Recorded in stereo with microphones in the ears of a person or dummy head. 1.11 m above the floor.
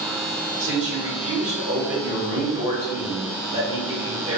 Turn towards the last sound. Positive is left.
turn(degrees=-35)  # may be behind; listen again after turning